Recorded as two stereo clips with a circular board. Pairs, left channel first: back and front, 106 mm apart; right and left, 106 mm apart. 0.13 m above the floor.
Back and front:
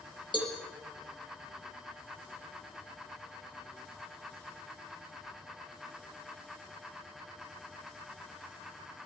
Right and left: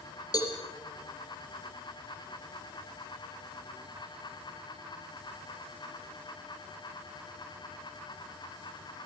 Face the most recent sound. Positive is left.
turn(degrees=-140)